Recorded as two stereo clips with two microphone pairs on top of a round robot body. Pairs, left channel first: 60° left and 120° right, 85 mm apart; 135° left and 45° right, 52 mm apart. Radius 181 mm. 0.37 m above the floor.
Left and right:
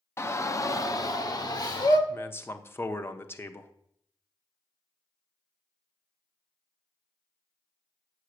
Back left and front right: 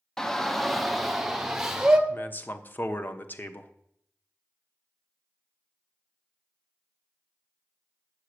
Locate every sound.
0.2 s a shout: 65° left, 1.1 m; by 2.0 s 35° left, 1.8 m
2.1 s a man speaking: 110° left, 1.2 m